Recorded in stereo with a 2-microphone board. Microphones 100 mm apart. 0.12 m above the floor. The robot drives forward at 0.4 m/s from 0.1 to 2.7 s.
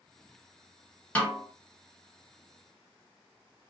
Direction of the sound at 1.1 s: 15° left (ahead or behind).